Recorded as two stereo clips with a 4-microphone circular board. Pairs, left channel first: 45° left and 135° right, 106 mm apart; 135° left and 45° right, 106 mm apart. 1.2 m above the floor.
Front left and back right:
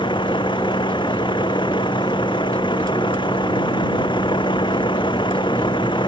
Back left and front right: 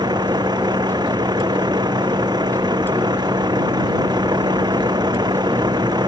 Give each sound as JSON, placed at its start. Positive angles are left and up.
{"t": 0.0, "sound": "a vehicle", "azimuth_deg": 5}